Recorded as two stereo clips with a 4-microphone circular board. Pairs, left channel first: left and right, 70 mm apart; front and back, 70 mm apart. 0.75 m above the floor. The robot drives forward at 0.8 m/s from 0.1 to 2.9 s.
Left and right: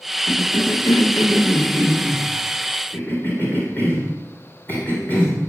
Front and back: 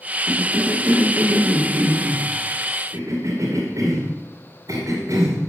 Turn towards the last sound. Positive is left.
turn(degrees=150)